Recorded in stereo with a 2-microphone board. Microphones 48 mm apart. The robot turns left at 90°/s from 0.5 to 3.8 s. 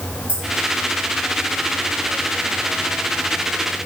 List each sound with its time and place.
0.3 s keys jangling: 25° right (ahead or behind), 3 m